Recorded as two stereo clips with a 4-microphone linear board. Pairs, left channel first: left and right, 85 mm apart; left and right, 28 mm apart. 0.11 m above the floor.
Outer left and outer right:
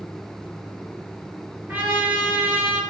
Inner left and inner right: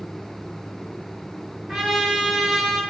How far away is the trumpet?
About 2 m.